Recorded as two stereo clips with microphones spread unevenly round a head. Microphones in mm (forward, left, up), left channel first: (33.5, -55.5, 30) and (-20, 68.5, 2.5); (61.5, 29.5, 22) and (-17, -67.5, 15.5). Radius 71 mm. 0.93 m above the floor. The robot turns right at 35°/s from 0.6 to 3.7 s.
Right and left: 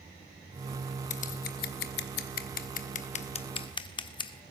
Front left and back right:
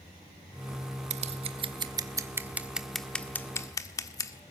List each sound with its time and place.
1.1 s scissors: 105° right, 1.4 m; by 4.4 s 10° right, 1.4 m